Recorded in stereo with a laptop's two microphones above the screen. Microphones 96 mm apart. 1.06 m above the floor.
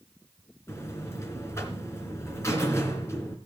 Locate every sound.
0.7 s a buzzer: 30° left (ahead or behind), 2.5 m